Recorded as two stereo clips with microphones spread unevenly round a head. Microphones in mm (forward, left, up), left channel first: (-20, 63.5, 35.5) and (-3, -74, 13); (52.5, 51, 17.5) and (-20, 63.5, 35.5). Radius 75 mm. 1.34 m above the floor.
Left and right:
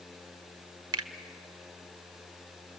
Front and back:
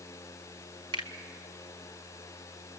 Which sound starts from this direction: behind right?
A finger snap, at 0.9 s.